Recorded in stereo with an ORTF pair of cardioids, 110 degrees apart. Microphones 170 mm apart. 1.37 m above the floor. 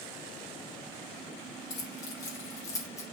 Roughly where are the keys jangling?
Ahead left.